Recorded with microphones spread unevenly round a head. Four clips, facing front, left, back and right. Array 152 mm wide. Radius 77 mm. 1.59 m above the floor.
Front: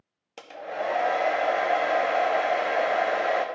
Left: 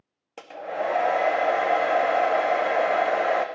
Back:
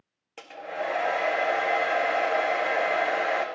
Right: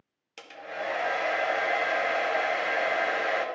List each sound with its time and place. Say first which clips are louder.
0.4 s a hair dryer: left 7 dB, front 1 dB; 75° left, 0.5 m